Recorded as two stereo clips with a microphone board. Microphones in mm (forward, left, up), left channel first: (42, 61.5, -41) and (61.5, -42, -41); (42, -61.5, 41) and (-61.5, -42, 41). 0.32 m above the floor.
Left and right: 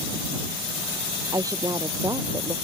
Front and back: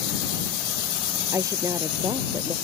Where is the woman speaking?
135° right.